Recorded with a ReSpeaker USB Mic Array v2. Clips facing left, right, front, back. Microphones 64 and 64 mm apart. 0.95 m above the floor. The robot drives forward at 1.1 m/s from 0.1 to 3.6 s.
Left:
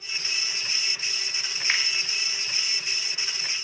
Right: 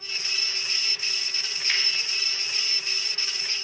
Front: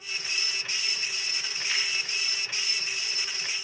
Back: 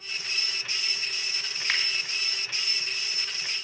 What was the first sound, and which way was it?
A finger snap, 145° left.